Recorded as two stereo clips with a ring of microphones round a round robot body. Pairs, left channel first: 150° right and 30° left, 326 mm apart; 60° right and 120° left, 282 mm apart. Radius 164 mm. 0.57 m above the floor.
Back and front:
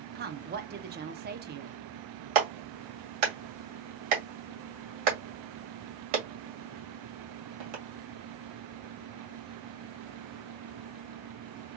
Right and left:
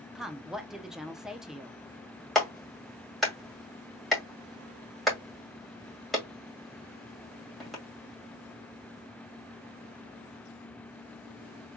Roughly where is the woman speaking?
Ahead left.